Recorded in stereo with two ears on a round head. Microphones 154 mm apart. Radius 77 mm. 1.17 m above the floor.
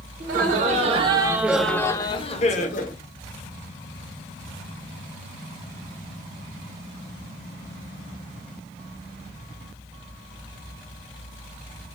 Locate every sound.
0.2 s laughter: 50° right (ahead or behind), 0.9 m; by 2.9 s 50° left (ahead or behind), 0.9 m